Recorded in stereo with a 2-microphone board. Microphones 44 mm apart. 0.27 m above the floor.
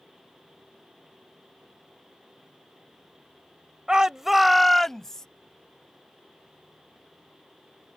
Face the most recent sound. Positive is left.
turn(degrees=15)  # may be behind; listen again after turning